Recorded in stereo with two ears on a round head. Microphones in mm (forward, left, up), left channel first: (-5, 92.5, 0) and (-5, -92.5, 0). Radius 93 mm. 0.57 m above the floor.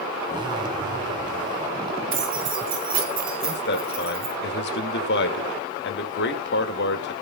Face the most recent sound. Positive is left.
turn(degrees=55)  # may be behind; listen again after turning